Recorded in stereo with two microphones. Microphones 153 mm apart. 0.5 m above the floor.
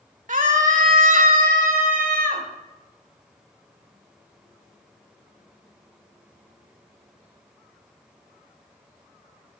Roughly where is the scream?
Right.